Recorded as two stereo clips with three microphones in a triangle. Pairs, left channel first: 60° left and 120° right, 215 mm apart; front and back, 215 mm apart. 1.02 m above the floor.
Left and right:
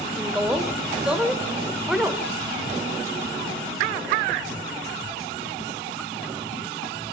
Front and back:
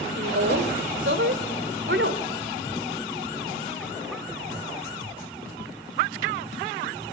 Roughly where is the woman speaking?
Behind left.